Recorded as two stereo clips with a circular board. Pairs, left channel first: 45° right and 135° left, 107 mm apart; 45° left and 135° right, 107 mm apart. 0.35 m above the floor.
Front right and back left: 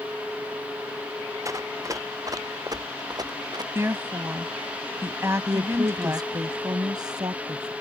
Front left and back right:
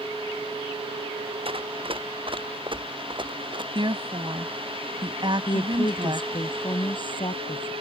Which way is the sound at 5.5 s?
85° left.